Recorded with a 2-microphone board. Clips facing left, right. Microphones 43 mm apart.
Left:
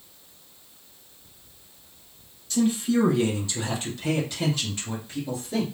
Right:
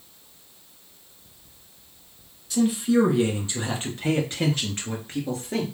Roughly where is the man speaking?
Centre.